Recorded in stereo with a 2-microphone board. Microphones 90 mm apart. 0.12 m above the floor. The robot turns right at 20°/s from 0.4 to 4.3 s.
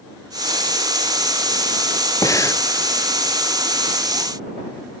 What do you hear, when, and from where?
2.2 s breathing: 40° left (ahead or behind); by 2.6 s 30° left (ahead or behind)